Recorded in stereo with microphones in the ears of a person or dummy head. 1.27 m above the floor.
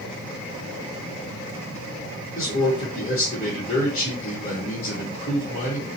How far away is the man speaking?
About 0.9 m.